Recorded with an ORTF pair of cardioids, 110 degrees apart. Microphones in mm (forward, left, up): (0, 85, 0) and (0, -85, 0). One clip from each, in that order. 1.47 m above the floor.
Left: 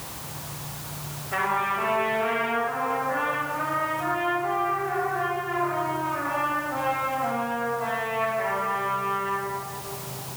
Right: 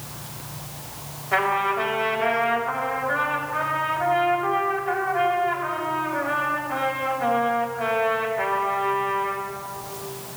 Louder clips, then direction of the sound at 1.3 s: Right 3 dB; 50° right.